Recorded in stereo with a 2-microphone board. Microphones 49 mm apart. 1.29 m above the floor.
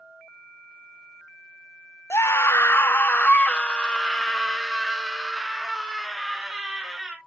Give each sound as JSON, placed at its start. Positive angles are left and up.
{"t": 2.1, "sound": "a scream", "side_deg": 65, "distance_m": 0.8}